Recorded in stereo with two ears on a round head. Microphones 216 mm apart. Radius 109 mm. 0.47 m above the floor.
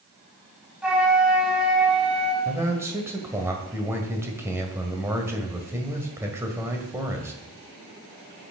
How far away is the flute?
About 3 m.